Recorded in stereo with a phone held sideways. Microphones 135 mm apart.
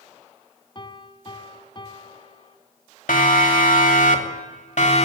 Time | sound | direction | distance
0.8 | a piano | 40° left (ahead or behind) | 1.7 m
3.1 | a siren | 75° left (ahead or behind) | 3 m